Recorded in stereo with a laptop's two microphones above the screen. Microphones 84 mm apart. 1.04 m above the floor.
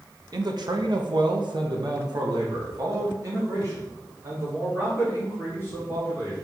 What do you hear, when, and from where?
0.3 s a man speaking: 50° right (ahead or behind), 1.0 m; by 6.3 s 25° right (ahead or behind), 3.5 m